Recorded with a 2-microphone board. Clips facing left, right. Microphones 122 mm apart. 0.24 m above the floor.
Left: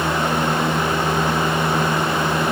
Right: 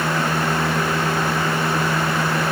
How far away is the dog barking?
I don't hear a dog barking.